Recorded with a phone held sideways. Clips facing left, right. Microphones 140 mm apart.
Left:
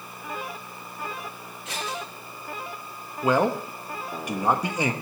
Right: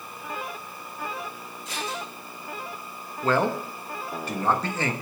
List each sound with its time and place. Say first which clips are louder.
1.6 s scissors: even; 65° left (ahead or behind), 8 m
3.2 s a man speaking: left 2 dB; 15° left (ahead or behind), 1.2 m